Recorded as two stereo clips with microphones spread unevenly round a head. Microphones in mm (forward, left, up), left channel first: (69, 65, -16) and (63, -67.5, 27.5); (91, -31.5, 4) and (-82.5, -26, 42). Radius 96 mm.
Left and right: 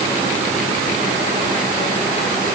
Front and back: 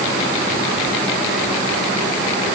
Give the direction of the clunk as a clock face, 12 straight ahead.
I don't hear a clunk.